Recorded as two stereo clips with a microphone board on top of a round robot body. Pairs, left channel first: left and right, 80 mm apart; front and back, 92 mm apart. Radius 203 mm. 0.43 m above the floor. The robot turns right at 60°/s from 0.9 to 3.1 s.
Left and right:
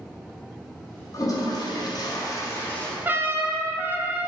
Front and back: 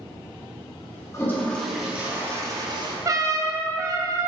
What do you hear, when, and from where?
1.1 s a toilet flushing: 55° left, 1.0 m; by 3.0 s 160° left, 1.0 m
3.0 s a trumpet: 145° right, 0.7 m